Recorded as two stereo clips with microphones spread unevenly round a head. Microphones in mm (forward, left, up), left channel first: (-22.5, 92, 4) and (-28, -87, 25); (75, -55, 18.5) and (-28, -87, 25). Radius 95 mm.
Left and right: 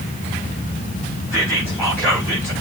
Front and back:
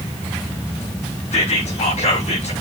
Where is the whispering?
10° left, 4 m.